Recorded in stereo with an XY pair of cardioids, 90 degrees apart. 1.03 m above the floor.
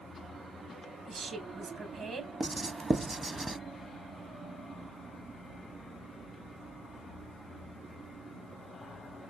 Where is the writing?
25° right, 0.9 m.